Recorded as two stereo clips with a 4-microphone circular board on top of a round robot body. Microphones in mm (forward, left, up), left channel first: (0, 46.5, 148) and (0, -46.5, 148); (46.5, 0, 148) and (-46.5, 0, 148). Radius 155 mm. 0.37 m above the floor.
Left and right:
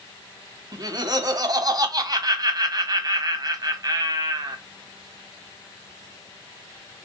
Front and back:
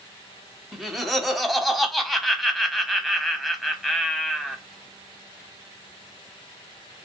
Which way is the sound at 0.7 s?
95° right.